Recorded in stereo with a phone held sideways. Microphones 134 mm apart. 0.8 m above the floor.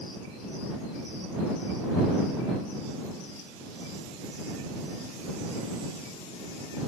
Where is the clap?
I don't hear a clap.